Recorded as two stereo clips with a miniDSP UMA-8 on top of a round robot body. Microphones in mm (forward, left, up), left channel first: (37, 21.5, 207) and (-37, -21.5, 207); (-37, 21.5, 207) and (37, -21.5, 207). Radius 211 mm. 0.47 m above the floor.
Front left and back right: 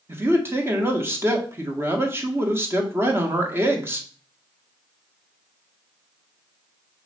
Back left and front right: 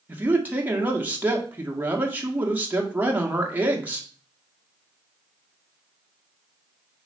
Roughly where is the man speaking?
Right.